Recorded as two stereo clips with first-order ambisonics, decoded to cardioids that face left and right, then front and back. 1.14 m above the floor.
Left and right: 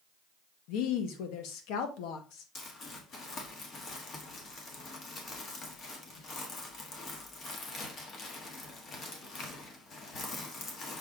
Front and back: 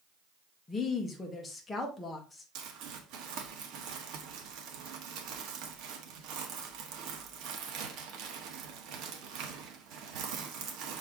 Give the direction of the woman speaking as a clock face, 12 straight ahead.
9 o'clock.